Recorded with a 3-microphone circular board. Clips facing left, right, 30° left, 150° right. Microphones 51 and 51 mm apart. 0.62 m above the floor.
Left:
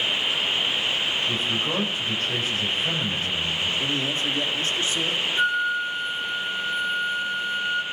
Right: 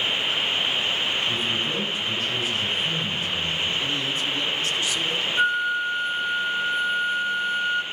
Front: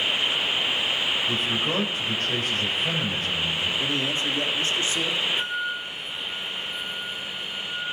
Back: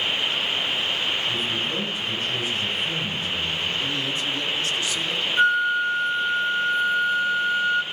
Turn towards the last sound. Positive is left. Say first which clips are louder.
# right 1 dB, back 9 dB
turn(degrees=-170)